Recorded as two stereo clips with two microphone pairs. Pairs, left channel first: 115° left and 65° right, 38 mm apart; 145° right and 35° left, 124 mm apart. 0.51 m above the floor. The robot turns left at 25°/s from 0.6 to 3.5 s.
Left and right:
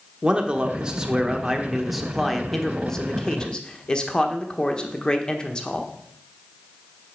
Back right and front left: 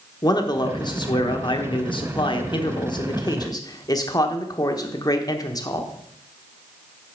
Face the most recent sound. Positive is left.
turn(degrees=175)